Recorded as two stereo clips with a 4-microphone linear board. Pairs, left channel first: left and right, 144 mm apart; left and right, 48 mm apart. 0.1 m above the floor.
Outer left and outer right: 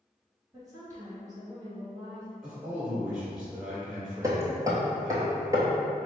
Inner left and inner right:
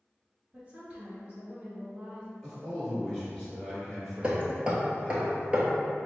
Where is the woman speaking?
25° right (ahead or behind), 1.9 m.